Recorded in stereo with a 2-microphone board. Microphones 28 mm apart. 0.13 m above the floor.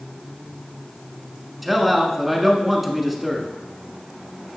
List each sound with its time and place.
1.6 s a man speaking: 5° right (ahead or behind), 1.1 m